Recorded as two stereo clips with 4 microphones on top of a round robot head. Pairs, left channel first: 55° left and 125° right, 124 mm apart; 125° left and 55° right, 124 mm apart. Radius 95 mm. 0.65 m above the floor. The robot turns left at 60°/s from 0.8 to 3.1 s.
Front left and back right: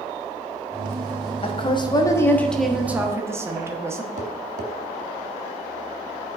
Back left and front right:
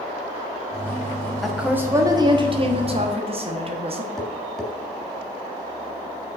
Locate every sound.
1.4 s a woman speaking: 35° left, 1.2 m; by 4.1 s 65° right, 1.2 m
4.2 s tapping: 145° right, 0.8 m